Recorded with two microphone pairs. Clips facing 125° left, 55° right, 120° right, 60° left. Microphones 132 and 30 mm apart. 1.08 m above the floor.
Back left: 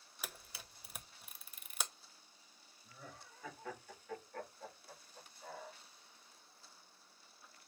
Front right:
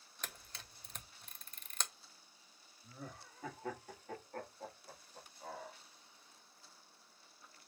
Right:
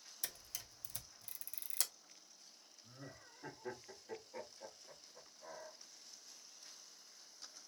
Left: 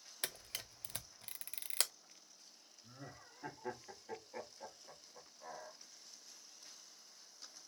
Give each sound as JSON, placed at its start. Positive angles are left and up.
{"t": 0.2, "sound": "a camera shutter", "azimuth_deg": 50, "distance_m": 0.6}
{"t": 2.8, "sound": "laughter", "azimuth_deg": -5, "distance_m": 1.5}